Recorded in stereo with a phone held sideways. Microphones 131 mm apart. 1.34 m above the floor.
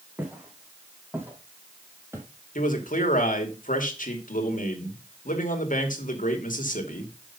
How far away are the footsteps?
About 4.5 m.